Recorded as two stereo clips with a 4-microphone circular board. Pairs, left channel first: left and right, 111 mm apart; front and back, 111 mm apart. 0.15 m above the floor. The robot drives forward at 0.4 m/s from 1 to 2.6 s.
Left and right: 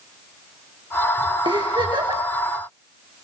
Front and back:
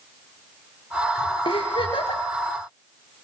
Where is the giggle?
45° right, 5.5 m.